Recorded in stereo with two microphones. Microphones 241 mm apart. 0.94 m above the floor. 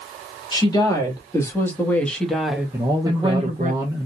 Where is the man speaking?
15° right (ahead or behind), 0.7 m.